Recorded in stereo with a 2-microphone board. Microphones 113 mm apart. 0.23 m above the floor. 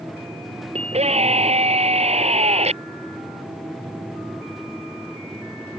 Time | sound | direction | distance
0.8 | a scream | 70° right (ahead or behind) | ?